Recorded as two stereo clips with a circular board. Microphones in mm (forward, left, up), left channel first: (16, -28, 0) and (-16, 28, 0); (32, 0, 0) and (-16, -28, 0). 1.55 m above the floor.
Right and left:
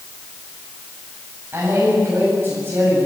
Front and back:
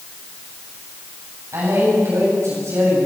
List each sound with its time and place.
1.5 s a man speaking: straight behind, 8 m